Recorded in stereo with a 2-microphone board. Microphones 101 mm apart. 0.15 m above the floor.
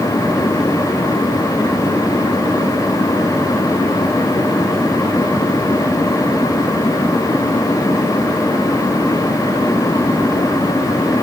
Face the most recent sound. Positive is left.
No sound to turn to.